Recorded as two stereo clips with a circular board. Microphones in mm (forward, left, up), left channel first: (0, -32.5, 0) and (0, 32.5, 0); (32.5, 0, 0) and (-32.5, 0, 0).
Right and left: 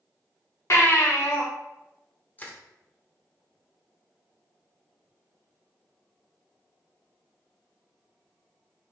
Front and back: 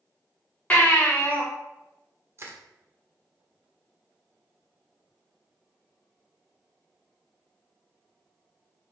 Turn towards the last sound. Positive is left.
turn(degrees=-145)